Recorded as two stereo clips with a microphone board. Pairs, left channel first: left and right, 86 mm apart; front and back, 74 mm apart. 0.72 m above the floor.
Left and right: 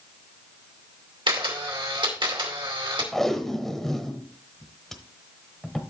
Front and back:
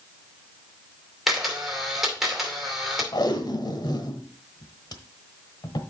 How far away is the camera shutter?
About 2.5 m.